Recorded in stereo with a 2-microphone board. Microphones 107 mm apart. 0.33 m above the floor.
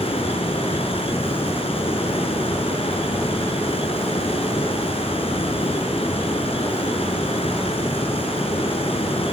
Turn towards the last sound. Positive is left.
turn(degrees=70)  # may be behind; listen again after turning